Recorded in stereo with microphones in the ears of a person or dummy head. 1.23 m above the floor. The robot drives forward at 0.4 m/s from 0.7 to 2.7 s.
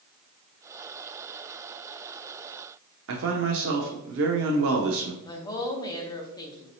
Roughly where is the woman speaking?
Left.